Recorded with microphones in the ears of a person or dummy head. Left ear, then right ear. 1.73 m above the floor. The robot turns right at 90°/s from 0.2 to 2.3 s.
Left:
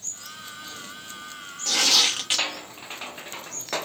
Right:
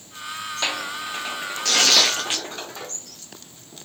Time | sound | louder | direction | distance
1.6 | tearing paper | right 3 dB | 25° right (ahead or behind) | 0.8 m